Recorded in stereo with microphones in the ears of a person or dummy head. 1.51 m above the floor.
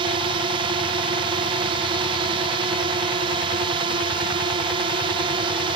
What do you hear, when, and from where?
0.0 s a drone: 25° right (ahead or behind)